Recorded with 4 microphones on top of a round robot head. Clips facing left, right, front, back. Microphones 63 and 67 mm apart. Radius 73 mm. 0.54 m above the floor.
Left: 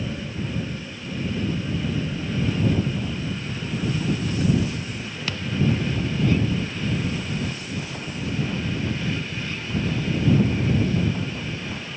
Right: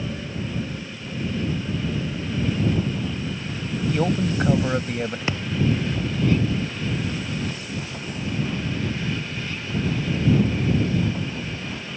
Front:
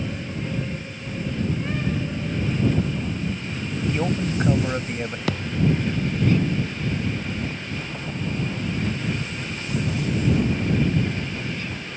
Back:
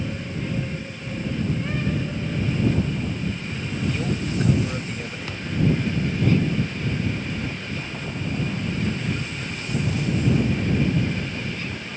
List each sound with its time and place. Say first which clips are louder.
3.9 s a man speaking: right 5 dB, front 3 dB; 65° right
5.3 s a thud: left 2 dB, even; 25° right